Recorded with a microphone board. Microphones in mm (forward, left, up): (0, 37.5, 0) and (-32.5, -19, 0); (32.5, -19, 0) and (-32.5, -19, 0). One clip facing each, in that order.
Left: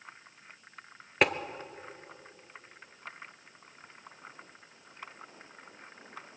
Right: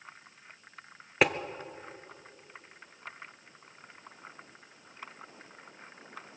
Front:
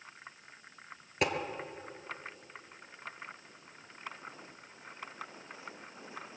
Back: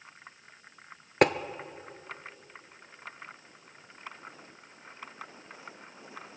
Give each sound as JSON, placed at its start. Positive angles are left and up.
{"t": 1.2, "sound": "tapping", "azimuth_deg": 150, "distance_m": 0.6}